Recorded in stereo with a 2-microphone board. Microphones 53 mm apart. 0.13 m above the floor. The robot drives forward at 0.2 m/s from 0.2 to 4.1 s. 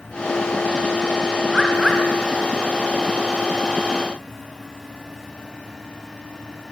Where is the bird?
5° left (ahead or behind), 1.2 m.